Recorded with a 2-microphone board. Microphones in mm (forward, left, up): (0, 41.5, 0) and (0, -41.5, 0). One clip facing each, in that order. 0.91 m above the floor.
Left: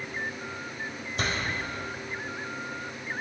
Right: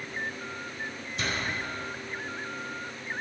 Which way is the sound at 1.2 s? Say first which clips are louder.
Left 2 dB; 45° left (ahead or behind).